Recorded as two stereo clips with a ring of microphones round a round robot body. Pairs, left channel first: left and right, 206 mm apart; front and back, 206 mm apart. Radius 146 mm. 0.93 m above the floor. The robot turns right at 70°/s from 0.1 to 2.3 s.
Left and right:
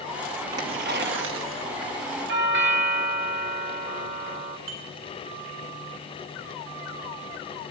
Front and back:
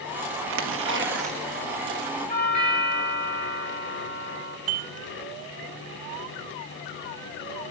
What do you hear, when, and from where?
0.5 s tearing paper: 175° right, 1.3 m; by 1.9 s 70° right, 1.3 m
2.3 s a doorbell: 65° right, 2.5 m
4.7 s dishes clattering: 140° right, 5.5 m